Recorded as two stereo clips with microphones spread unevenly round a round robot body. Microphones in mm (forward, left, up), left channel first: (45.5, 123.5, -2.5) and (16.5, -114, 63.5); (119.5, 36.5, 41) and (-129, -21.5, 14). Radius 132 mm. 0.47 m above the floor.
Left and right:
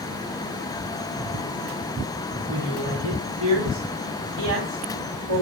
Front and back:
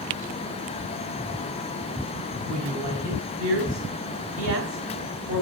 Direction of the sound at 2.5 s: 135° right.